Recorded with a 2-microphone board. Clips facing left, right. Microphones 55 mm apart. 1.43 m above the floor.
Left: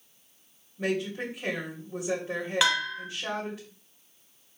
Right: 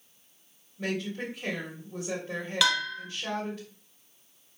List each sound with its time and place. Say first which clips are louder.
0.8 s a woman speaking: left 3 dB; 15° left (ahead or behind), 3 m
2.6 s a bell: even; 25° left (ahead or behind), 1.9 m